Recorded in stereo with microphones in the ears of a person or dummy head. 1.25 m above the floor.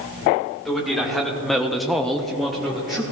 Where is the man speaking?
5° left (ahead or behind), 2 m; by 3.0 s centre (ahead or behind), 1.5 m.